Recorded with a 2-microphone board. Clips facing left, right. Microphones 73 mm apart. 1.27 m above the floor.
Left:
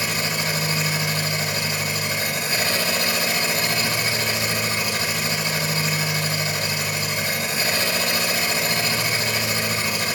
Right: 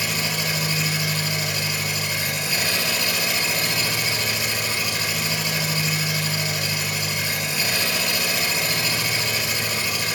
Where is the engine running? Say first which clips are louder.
Left 1 dB; 35° left (ahead or behind), 5.5 m.